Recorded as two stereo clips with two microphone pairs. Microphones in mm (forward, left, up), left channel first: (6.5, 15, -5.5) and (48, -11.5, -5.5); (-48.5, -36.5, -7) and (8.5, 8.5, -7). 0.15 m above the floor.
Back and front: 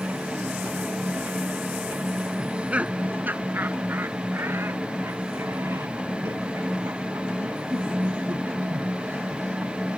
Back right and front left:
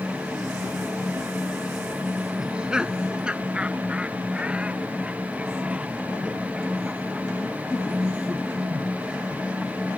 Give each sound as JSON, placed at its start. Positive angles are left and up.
{"t": 2.4, "sound": "laughter", "azimuth_deg": -25}